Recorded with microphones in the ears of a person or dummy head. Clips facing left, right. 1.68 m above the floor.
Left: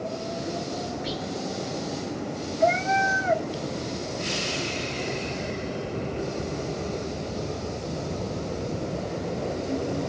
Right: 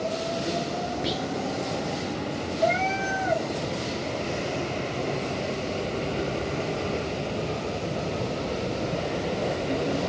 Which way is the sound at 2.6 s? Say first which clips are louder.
Left 3 dB; 20° left (ahead or behind).